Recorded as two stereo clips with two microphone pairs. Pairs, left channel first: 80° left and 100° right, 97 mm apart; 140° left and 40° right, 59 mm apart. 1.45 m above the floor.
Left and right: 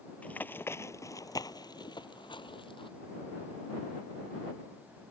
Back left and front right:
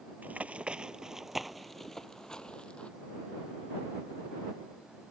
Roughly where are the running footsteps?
Ahead.